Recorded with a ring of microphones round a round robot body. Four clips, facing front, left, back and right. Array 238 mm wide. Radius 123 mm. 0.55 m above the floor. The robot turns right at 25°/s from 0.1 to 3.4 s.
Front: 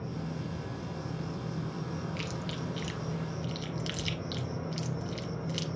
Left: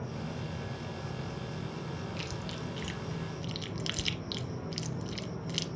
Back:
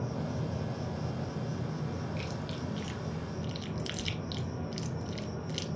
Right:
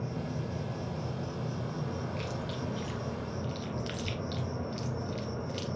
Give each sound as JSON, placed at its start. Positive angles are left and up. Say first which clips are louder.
{"t": 0.0, "sound": "an insect", "louder": "right 3 dB, back 2 dB", "azimuth_deg": -155, "distance_m": 1.5}
{"t": 2.2, "sound": "chewing", "louder": "right 3 dB, front 1 dB", "azimuth_deg": 60, "distance_m": 0.7}